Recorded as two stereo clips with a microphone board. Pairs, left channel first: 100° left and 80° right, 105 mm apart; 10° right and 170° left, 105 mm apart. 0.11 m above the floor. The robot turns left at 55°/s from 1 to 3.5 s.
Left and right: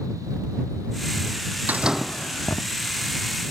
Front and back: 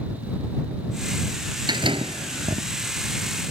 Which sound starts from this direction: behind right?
A door slam, at 1.7 s.